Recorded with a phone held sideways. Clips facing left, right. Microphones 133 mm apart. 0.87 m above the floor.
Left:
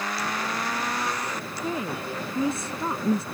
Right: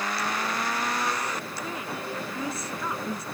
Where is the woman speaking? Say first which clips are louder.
Left 4 dB; 30° left (ahead or behind).